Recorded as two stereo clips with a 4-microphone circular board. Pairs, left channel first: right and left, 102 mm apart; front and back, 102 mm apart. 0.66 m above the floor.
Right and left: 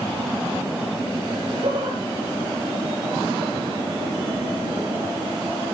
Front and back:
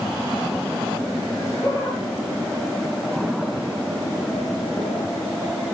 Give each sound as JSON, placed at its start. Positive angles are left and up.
{"t": 1.3, "sound": "laughter", "azimuth_deg": 55, "distance_m": 9.0}